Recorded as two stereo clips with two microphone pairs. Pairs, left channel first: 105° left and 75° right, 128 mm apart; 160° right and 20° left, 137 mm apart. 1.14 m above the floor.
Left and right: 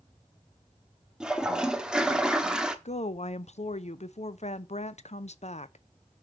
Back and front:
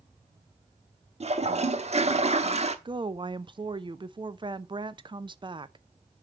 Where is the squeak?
I don't hear a squeak.